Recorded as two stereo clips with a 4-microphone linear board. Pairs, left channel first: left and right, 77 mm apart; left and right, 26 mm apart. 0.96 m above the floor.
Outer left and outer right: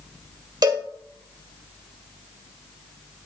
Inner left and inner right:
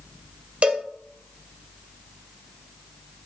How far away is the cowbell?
About 1.7 m.